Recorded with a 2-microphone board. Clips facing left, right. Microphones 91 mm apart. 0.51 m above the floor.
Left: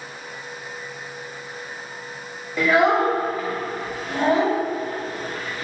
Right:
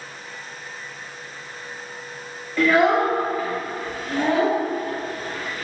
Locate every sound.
2.6 s a child speaking: 10° left (ahead or behind), 0.7 m; by 5.7 s 35° left (ahead or behind), 2.5 m